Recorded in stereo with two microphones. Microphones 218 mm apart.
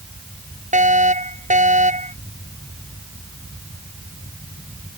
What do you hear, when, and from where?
0.7 s a fire alarm: 35° right (ahead or behind)